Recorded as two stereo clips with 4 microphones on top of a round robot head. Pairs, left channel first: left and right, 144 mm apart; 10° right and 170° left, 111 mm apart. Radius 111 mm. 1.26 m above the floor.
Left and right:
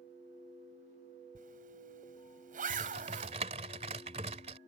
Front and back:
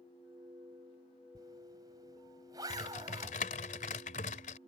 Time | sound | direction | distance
1.4 | a zipper | 120° right | ?
2.7 | typing on a keyboard | 35° right | ?